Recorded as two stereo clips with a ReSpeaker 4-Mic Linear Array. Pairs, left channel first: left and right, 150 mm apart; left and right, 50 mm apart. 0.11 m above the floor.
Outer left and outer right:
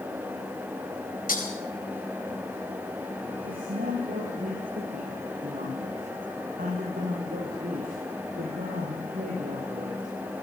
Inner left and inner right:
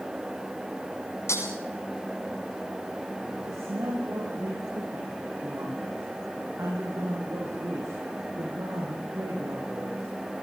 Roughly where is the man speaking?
Right.